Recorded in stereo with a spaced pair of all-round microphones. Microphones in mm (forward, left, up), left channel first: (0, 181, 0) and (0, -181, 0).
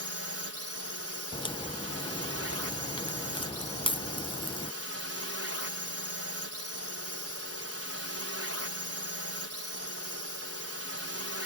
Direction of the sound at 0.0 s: 40° right (ahead or behind).